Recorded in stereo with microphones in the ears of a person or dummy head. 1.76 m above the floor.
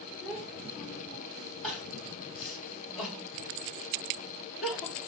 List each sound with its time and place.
0.2 s a child speaking: 5° right (ahead or behind), 1.9 m; by 1.5 s 5° left (ahead or behind), 2.5 m
1.6 s crying: 5° left (ahead or behind), 4.5 m